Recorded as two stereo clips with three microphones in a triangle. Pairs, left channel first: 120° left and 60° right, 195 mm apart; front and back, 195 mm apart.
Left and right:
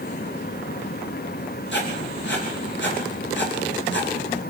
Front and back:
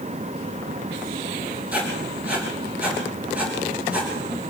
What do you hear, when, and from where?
1.7 s writing: 95° left, 8 m